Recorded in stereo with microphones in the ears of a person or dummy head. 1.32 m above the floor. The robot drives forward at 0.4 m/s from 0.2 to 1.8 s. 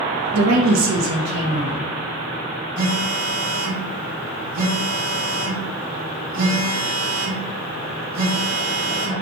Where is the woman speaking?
85° right, 0.5 m; by 1.9 s 45° right (ahead or behind), 0.8 m.